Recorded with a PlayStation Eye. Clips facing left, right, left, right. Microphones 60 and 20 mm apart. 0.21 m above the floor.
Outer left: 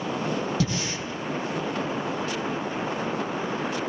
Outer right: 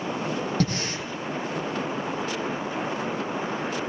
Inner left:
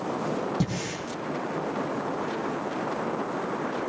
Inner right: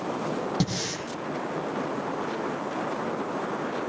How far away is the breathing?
About 4 m.